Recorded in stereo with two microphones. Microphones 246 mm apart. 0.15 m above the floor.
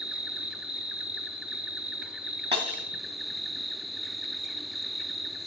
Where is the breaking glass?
20° right (ahead or behind), 2 m.